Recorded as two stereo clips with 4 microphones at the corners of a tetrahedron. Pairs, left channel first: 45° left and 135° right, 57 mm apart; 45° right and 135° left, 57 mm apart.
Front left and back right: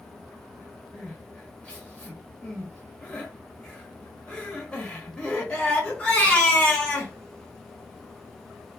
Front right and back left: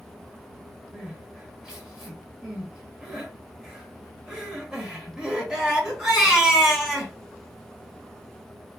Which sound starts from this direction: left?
Crying, at 0.9 s.